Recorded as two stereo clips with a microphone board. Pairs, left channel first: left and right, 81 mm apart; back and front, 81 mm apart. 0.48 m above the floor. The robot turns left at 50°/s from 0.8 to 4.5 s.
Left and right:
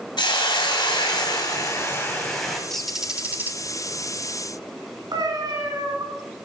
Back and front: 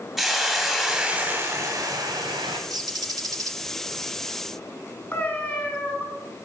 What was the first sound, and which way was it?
A hiss, 85° left.